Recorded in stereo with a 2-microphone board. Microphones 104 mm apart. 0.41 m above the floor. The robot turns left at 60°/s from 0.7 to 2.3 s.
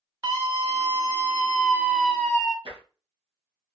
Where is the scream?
100° right, 1.0 m; by 2.5 s 165° left, 1.0 m.